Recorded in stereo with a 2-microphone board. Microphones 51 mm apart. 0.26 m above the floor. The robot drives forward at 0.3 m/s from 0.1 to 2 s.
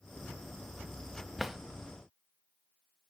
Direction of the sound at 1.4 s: 5° right (ahead or behind).